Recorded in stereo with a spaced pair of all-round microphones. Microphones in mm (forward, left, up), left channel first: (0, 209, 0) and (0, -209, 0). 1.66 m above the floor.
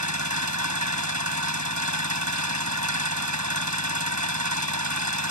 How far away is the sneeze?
No sneeze in this recording.